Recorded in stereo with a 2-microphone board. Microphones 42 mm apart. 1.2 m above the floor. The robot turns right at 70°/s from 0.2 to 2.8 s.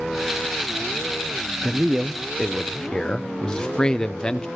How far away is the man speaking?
About 0.6 m.